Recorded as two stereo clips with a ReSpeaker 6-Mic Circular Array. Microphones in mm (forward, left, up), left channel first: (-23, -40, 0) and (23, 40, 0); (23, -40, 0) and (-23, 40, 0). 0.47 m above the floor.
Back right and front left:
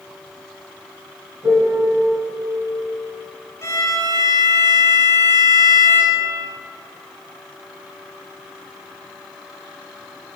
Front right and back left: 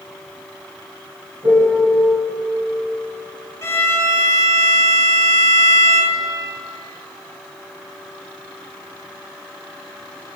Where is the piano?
100° left, 2.5 m.